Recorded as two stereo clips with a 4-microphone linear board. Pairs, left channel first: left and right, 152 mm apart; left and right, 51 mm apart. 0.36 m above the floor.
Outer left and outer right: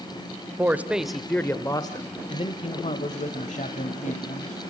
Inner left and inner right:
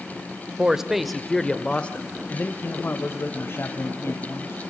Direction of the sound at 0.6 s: 15° right (ahead or behind).